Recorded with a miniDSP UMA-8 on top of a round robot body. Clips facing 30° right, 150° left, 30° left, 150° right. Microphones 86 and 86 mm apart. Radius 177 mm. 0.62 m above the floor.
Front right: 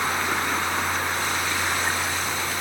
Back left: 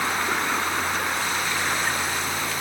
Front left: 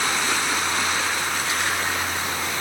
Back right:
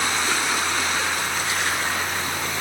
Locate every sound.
Only background noise.